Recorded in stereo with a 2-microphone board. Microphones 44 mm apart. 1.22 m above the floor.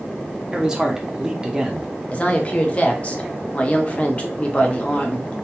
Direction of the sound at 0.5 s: 10° right (ahead or behind).